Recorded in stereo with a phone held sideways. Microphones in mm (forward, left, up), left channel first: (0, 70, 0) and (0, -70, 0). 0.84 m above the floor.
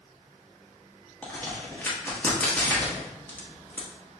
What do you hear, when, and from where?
1.2 s a crack: 10° left (ahead or behind), 1.0 m